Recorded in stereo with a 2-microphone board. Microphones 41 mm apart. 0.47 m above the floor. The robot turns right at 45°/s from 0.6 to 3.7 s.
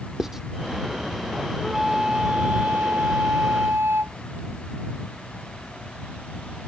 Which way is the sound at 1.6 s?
175° right.